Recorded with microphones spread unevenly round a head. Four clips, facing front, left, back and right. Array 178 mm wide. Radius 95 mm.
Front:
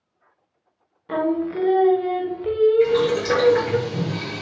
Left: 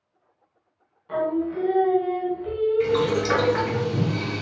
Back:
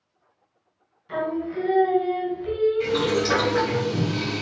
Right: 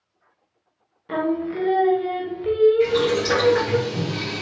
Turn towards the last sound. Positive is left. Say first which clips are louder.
# right 2 dB, front 4 dB
turn(degrees=120)